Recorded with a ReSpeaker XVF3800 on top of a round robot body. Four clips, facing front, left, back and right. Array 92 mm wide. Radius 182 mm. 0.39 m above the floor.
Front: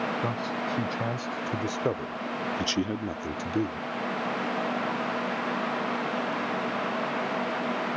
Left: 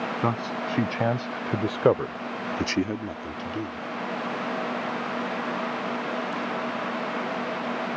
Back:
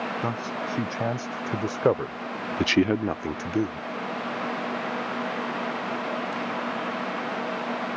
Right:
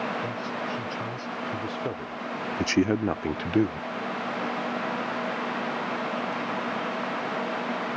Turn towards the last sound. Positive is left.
turn(degrees=-105)